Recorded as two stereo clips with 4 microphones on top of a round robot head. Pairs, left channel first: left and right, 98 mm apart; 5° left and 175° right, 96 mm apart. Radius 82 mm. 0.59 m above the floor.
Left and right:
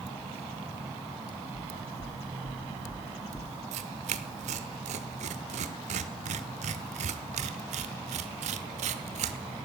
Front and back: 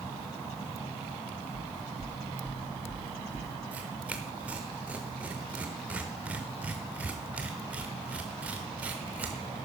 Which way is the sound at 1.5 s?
105° left.